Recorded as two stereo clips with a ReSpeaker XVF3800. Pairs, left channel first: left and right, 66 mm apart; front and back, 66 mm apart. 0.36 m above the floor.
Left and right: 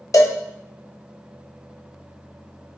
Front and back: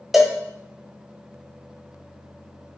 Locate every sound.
0.1 s a cowbell: 95° left, 0.6 m